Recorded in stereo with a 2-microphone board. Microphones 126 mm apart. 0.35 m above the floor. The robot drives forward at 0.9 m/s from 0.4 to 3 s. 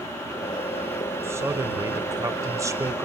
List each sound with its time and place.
1.2 s a man speaking: 20° right (ahead or behind), 1.3 m